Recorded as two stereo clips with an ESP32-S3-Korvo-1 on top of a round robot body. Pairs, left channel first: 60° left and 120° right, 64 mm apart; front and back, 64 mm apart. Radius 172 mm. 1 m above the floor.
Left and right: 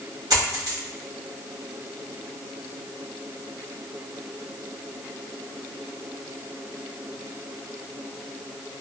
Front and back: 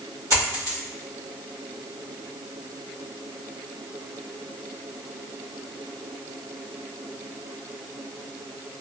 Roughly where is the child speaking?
No child speaking in this recording.